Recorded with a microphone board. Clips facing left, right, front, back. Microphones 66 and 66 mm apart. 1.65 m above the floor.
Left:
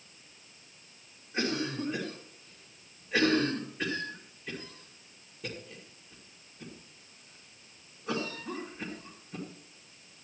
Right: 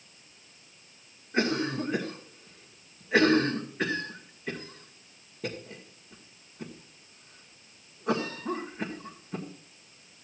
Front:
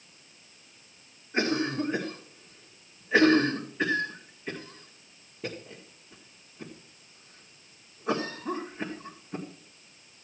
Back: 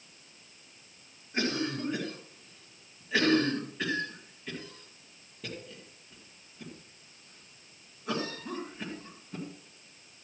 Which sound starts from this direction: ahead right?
A cough, at 1.3 s.